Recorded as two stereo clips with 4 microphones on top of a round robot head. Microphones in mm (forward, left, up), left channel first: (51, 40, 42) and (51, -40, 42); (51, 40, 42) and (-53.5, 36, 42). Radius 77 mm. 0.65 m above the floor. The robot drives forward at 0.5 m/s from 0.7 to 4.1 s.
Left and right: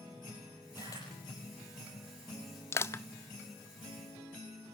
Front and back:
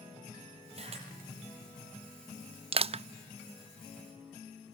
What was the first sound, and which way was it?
A camera shutter, 155° left.